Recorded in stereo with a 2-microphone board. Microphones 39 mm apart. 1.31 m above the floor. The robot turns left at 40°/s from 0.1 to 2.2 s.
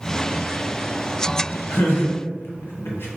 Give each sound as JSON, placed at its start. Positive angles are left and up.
{"t": 1.7, "sound": "laughter", "side_deg": 70, "distance_m": 0.9}